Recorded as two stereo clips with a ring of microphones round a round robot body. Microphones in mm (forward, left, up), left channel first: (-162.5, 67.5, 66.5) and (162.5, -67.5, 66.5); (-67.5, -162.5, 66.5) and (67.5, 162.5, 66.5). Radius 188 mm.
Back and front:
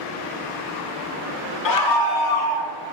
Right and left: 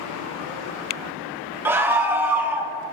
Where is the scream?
150° left, 1.0 m.